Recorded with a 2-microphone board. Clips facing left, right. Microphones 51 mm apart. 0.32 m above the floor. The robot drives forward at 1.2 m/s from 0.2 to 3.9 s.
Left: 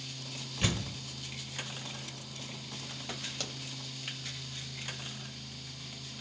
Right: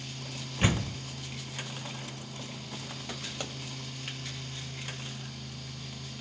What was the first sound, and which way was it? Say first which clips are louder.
A door slam: right 5 dB; 25° right (ahead or behind).